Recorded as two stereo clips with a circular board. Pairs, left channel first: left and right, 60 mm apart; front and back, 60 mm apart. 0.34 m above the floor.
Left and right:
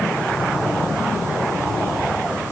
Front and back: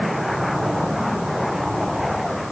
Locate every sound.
Only background noise.